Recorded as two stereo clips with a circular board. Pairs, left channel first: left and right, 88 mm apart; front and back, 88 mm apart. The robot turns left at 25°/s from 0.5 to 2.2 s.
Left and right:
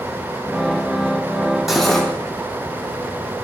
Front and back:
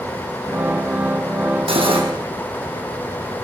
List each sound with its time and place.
1.7 s cutlery clinking: straight behind, 4 m; by 2.1 s 175° left, 4 m